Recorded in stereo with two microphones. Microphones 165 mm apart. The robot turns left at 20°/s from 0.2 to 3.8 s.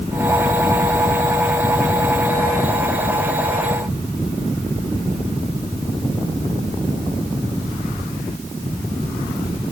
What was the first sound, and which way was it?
Only background noise.